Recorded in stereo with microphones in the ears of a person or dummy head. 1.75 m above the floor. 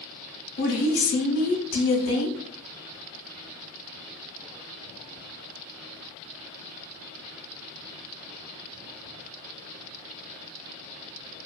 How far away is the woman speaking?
About 0.8 m.